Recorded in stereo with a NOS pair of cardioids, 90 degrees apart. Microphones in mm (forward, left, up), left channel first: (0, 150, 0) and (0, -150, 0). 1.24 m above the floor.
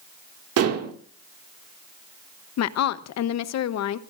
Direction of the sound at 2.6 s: 65° left.